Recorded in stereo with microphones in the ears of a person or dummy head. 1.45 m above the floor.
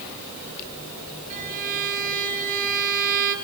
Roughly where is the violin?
Right.